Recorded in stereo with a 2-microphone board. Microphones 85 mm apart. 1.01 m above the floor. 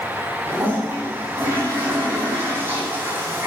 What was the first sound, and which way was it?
A toilet flushing, 30° right (ahead or behind).